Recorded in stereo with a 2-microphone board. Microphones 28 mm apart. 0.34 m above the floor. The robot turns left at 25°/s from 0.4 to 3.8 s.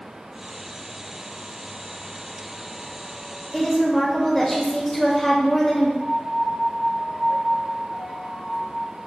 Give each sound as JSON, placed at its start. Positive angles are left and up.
{"t": 3.5, "sound": "a woman speaking", "side_deg": 5, "distance_m": 1.0}
{"t": 6.0, "sound": "a piano", "side_deg": -25, "distance_m": 1.3}